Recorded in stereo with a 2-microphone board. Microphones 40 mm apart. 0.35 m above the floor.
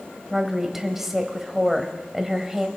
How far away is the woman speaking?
About 1.3 m.